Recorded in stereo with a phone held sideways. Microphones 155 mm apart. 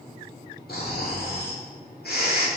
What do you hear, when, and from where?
0.7 s snoring: 75° left (ahead or behind), 2.5 m